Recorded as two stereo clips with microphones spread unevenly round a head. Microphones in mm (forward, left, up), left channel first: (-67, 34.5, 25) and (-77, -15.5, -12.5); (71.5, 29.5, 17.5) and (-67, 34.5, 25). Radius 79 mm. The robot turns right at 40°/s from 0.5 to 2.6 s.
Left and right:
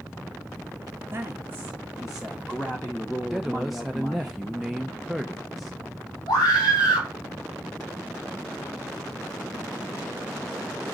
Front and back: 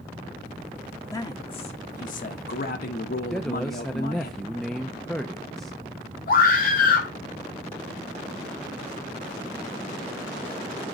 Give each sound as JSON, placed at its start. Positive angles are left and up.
{"t": 1.1, "sound": "a man speaking", "azimuth_deg": -70, "distance_m": 1.2}
{"t": 3.3, "sound": "a man speaking", "azimuth_deg": -85, "distance_m": 0.6}
{"t": 6.3, "sound": "a scream", "azimuth_deg": 10, "distance_m": 3.0}